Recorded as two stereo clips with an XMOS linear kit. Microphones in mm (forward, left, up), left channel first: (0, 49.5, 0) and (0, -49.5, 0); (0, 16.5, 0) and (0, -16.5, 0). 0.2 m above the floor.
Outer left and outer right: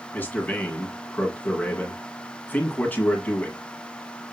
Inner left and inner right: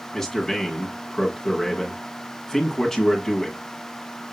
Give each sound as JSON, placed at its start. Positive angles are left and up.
{"t": 0.1, "sound": "a man speaking", "side_deg": 20, "distance_m": 1.4}